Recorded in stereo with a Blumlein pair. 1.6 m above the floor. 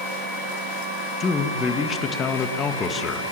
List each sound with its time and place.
1.2 s a man speaking: 20° left, 1.7 m